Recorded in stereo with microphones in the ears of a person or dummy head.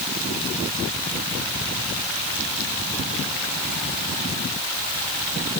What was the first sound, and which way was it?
Only background noise.